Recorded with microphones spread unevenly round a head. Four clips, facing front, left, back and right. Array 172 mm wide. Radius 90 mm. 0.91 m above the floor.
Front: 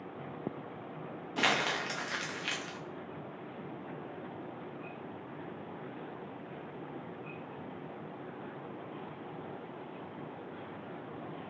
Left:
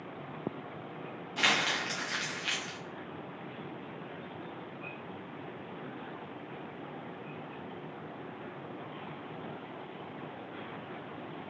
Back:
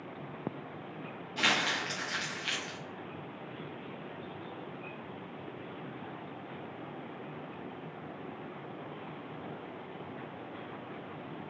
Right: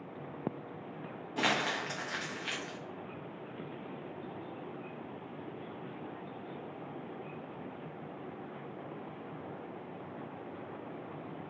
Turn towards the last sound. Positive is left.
turn(degrees=-30)